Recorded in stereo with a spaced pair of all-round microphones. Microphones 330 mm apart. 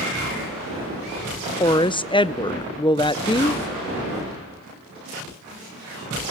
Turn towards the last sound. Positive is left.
turn(degrees=15)  # may be behind; listen again after turning